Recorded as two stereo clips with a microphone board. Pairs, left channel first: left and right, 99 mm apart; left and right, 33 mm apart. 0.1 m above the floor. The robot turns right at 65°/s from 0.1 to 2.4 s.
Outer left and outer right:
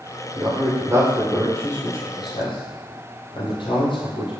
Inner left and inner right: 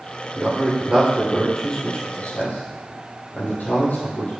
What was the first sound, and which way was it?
A man speaking, 60° right (ahead or behind).